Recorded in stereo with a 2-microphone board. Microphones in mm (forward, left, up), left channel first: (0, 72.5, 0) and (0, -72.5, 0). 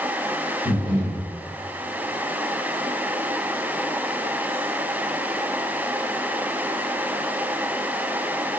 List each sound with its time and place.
0.7 s breathing: 15° left (ahead or behind), 1.4 m